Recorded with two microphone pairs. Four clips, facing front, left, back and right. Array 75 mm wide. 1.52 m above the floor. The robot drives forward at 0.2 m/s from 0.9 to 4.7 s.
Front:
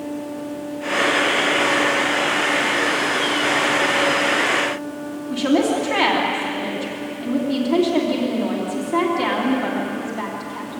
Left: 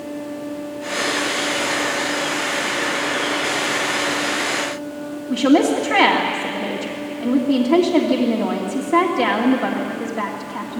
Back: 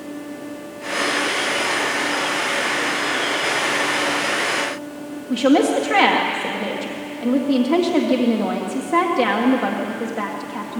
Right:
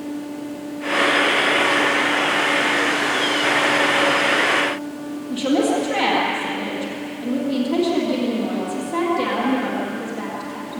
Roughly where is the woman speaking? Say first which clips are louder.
Left 4 dB, back 3 dB; behind left.